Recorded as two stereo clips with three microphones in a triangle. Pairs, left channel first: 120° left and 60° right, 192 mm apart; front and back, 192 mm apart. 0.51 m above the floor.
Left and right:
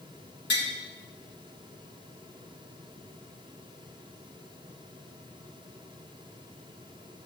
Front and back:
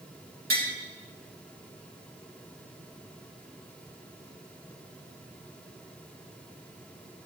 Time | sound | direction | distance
0.5 | tapping | 145° left | 4 m